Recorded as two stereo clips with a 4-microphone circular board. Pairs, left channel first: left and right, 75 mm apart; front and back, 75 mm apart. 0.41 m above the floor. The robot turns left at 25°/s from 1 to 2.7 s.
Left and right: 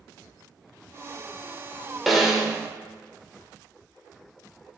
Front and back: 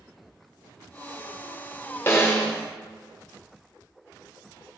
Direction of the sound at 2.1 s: Straight ahead.